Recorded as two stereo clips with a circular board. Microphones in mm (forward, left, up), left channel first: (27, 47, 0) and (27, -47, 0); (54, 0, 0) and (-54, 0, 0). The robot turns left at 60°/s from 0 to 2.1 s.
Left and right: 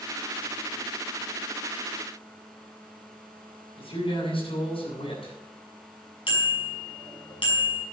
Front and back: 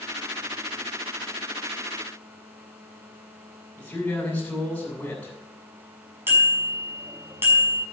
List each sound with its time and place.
3.8 s a man speaking: 80° left, 7.5 m
6.3 s a bicycle bell: 110° left, 6 m